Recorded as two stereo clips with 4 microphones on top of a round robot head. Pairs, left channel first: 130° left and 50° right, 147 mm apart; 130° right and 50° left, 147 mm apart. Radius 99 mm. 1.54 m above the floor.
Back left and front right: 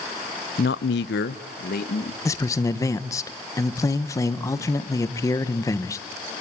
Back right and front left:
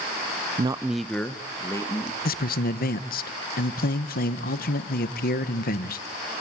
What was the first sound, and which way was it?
A man speaking, 95° left.